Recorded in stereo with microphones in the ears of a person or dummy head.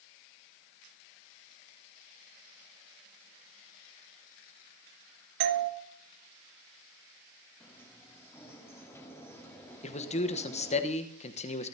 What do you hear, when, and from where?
5.4 s a doorbell: 55° right (ahead or behind), 1.4 m
7.6 s a sliding door: 15° left (ahead or behind), 2.5 m
9.8 s a man speaking: 30° left (ahead or behind), 1.1 m